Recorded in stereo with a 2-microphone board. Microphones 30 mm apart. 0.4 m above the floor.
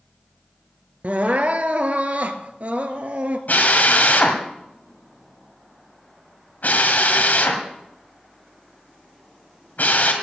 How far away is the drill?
About 2.0 m.